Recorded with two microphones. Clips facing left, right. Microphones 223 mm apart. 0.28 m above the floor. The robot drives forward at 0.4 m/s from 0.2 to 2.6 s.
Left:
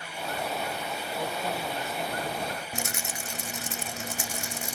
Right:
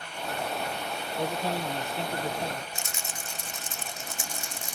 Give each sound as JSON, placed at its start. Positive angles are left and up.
{"t": 1.2, "sound": "a man speaking", "side_deg": -30}
{"t": 2.7, "sound": "a rattle", "side_deg": 80}